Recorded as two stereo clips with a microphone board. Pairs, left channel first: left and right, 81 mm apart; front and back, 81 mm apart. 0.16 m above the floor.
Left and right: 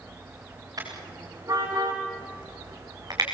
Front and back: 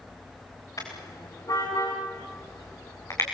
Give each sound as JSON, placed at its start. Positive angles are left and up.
{"t": 0.8, "sound": "a car horn", "azimuth_deg": -45, "distance_m": 7.5}